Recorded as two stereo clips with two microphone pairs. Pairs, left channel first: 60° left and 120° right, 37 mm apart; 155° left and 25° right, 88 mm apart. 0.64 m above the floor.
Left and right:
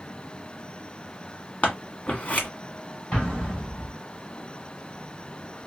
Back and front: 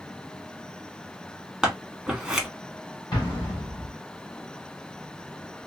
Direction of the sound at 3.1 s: 125° left.